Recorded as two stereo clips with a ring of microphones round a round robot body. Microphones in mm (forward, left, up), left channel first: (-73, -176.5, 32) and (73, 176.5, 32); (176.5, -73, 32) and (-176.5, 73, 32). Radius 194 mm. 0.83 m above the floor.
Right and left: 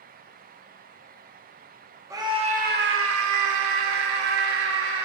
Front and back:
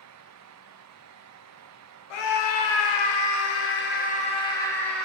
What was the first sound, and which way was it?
A scream, 15° right.